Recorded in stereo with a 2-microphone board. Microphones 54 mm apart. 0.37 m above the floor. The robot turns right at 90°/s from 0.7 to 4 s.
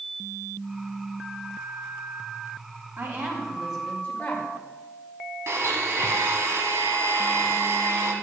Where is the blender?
60° right (ahead or behind), 1.5 m.